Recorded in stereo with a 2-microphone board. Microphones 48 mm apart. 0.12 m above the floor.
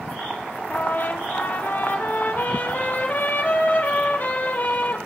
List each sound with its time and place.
0.7 s a trumpet: 40° left (ahead or behind), 4 m